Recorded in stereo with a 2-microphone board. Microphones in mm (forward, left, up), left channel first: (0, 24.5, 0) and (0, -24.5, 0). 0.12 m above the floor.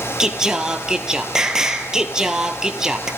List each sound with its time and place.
0.2 s singing: 15° right (ahead or behind), 1.4 m